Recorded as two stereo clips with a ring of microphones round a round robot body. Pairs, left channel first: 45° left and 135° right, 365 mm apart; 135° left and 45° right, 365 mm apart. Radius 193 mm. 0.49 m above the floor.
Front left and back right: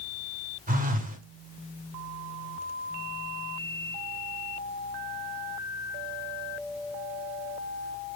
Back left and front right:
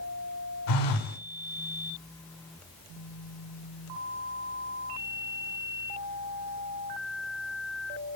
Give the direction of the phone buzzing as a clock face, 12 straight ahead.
7 o'clock.